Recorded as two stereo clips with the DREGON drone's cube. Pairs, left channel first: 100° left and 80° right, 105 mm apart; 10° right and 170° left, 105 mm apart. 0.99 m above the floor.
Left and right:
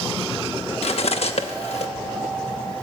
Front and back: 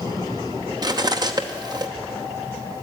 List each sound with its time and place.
0.8 s cutlery clinking: 120° left, 0.7 m